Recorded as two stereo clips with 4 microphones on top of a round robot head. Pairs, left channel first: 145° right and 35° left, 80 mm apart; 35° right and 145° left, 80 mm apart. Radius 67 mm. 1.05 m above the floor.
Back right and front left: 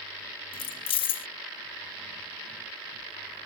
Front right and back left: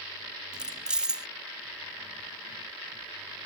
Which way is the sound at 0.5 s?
135° right.